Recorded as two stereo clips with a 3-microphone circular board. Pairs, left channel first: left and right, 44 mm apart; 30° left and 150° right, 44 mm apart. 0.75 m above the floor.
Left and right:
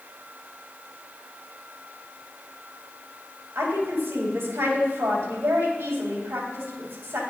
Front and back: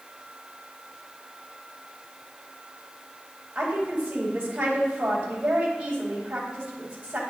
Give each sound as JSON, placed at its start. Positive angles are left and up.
{"t": 3.5, "sound": "a woman speaking", "azimuth_deg": -85, "distance_m": 2.5}